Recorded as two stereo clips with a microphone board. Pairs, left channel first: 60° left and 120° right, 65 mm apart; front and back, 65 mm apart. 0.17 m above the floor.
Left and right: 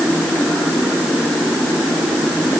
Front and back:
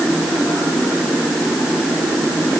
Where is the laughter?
No laughter in this recording.